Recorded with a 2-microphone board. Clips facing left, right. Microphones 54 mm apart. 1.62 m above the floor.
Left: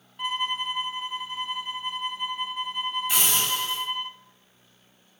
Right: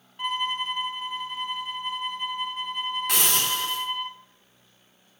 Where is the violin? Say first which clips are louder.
Right 1 dB; centre (ahead or behind), 0.8 m.